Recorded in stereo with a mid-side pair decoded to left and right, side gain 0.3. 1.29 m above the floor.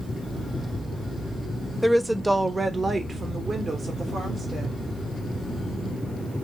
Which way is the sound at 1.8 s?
5° right.